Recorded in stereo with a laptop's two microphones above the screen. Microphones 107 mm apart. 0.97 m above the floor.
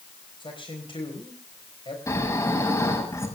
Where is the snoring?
30° left (ahead or behind), 6 m.